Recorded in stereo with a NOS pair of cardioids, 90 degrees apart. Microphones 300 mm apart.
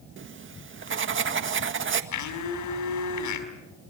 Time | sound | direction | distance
0.2 | writing | 40° right | 1.7 m
2.1 | a blender | 65° left | 5 m